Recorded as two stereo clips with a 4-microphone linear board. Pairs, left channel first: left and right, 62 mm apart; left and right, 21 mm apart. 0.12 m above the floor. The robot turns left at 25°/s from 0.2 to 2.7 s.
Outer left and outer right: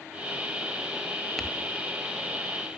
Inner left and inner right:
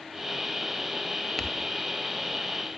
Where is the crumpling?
Centre (ahead or behind), 1.3 m; by 1.5 s 5° left (ahead or behind), 1.3 m.